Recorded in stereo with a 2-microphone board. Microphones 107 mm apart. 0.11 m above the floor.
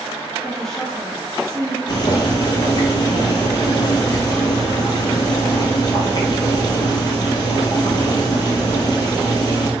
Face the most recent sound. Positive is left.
turn(degrees=45)  # may be behind; listen again after turning